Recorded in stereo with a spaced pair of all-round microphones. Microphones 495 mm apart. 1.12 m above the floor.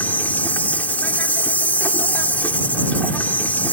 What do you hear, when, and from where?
0.0 s an insect: 5° left (ahead or behind)